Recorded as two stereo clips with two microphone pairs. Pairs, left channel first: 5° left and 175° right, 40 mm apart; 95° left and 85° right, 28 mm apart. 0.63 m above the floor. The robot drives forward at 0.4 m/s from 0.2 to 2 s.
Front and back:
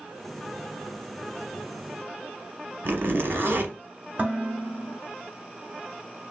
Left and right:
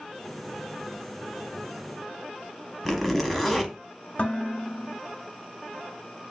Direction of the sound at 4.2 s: 140° left.